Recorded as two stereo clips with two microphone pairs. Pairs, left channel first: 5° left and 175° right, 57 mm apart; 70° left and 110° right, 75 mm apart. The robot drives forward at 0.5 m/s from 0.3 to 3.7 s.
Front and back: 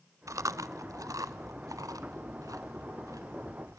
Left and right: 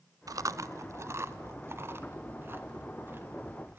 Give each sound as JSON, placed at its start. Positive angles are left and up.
{"t": 0.3, "sound": "chewing", "azimuth_deg": -150, "distance_m": 0.5}